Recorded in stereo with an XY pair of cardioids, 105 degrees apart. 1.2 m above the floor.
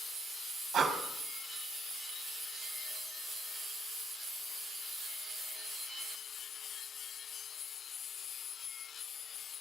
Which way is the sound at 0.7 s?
50° right.